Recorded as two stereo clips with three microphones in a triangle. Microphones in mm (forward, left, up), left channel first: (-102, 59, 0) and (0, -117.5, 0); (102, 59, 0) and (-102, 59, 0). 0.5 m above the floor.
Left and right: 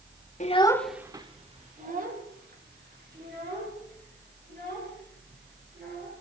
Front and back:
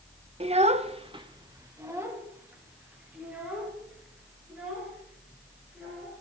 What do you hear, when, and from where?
0.4 s a child speaking: 140° left, 1.0 m; by 6.2 s 95° right, 8 m